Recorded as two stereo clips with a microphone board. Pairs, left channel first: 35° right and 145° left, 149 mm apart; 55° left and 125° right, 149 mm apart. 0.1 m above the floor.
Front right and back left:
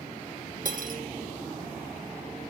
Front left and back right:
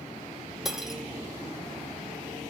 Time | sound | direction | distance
0.7 | cutlery clinking | 150° left | 1.4 m